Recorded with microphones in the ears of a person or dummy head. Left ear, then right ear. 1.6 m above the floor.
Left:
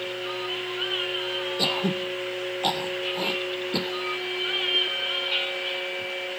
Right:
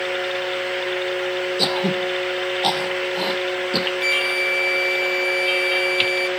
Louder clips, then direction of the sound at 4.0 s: Right 9 dB; 60° right (ahead or behind).